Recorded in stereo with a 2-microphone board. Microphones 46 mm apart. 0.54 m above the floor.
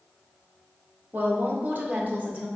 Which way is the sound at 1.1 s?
40° right (ahead or behind).